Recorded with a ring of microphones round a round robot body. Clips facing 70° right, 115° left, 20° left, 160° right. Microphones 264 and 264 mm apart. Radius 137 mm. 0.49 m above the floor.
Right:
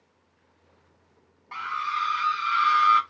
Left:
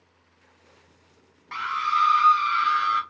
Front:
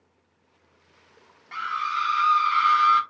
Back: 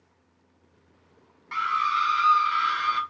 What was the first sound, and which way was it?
A scream, 130° left.